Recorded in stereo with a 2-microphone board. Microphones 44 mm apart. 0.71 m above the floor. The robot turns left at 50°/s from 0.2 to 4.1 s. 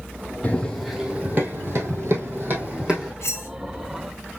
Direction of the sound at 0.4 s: 30° left (ahead or behind).